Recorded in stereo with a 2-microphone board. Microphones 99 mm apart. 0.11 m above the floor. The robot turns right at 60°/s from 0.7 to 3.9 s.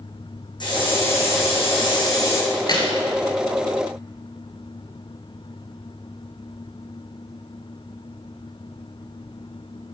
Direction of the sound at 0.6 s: 50° left.